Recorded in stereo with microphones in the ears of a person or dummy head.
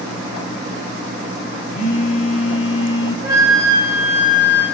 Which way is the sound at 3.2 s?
20° right (ahead or behind).